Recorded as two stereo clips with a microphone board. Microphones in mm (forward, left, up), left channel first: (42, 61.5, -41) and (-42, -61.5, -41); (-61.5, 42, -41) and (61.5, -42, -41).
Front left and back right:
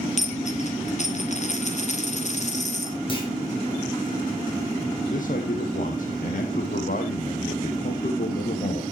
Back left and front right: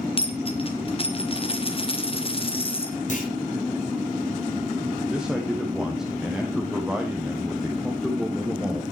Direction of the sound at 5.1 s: 50° left.